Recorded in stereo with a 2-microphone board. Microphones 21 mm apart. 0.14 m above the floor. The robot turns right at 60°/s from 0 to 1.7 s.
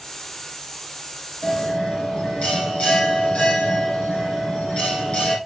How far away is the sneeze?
I don't hear a sneeze.